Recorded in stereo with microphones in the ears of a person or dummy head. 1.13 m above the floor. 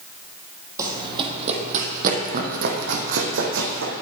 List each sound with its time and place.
0.8 s running footsteps: 15° right (ahead or behind), 2.0 m; by 3.9 s 70° right (ahead or behind), 3.5 m